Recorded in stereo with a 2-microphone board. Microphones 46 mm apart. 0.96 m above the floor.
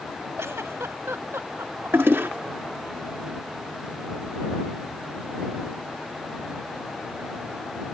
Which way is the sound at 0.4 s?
80° right.